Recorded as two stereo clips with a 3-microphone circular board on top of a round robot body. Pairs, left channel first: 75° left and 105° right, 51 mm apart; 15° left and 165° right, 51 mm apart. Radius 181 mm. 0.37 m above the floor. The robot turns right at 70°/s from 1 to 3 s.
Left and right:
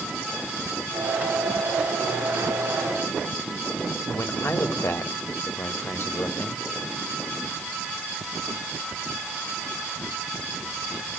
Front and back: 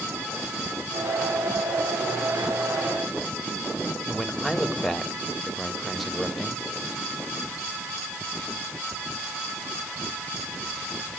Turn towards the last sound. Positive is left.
turn(degrees=105)